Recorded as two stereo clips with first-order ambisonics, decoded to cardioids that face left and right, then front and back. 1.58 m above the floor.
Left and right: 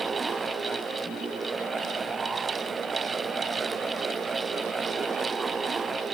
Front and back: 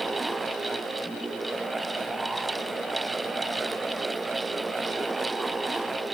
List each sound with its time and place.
Only background noise.